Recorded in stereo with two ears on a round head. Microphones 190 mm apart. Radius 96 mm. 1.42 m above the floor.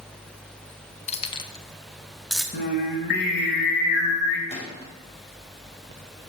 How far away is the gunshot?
About 5 m.